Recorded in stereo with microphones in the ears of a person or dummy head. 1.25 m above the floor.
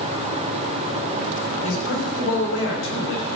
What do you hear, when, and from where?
1.6 s a man speaking: 90° left, 6 m